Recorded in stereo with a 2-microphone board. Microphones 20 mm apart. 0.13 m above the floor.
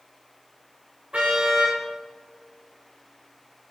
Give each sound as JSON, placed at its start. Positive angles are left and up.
{"t": 1.1, "sound": "a car horn", "side_deg": -75, "distance_m": 5.0}